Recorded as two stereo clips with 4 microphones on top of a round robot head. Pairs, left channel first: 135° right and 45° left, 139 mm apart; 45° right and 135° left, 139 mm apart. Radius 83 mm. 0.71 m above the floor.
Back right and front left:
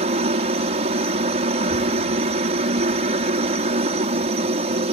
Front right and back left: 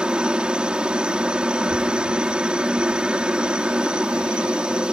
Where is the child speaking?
15° right.